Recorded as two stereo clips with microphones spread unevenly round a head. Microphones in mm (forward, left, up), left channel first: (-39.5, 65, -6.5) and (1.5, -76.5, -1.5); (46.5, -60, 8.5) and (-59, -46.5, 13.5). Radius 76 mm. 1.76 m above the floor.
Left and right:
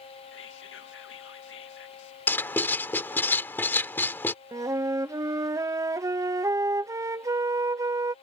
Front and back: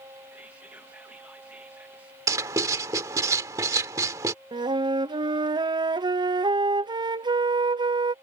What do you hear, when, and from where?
0.3 s whispering: 90° left
2.3 s writing: 170° left
4.5 s a flute: 140° right